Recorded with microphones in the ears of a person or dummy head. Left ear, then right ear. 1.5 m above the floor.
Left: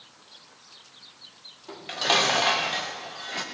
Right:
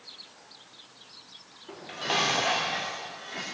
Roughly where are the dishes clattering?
Left.